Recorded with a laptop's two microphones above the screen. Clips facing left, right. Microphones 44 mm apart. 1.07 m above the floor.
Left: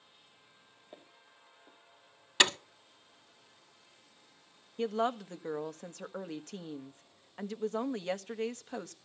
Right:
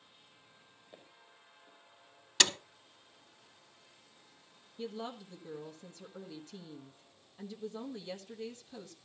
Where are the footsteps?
40° left (ahead or behind), 3 m.